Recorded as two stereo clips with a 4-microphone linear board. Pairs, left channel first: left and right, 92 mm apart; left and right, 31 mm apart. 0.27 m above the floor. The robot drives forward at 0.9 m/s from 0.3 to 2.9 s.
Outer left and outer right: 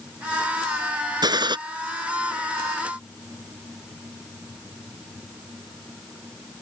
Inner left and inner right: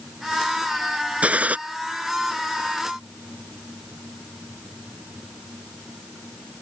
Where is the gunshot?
50° right (ahead or behind); by 1.6 s 55° right (ahead or behind).